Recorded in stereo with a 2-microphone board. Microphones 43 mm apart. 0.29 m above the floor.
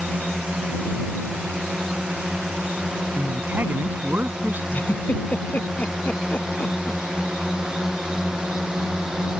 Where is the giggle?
40° left (ahead or behind).